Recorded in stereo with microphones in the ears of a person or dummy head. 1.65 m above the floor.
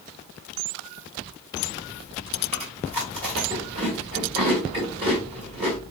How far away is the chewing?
About 1.7 m.